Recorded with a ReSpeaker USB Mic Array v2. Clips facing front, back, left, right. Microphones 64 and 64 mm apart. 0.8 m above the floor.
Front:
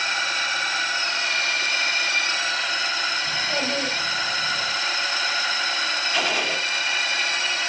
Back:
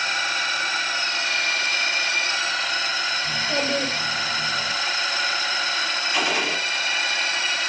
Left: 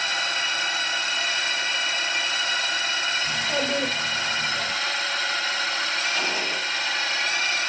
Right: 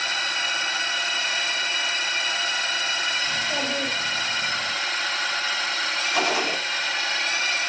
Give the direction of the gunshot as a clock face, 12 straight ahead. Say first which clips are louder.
Back 1 dB, right 3 dB; 3 o'clock.